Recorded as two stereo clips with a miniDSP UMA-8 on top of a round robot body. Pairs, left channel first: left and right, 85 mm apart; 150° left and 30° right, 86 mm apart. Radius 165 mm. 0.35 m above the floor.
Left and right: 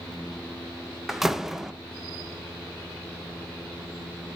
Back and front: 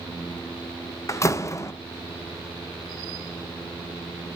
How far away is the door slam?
About 0.8 m.